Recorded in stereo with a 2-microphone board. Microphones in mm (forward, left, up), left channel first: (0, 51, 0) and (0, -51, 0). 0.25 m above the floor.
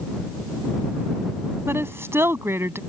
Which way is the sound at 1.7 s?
25° right (ahead or behind).